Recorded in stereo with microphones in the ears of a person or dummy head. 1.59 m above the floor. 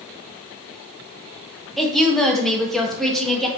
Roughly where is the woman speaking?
Centre.